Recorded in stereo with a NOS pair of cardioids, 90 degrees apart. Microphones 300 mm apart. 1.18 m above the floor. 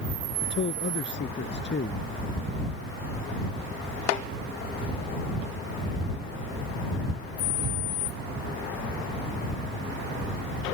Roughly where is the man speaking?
Ahead left.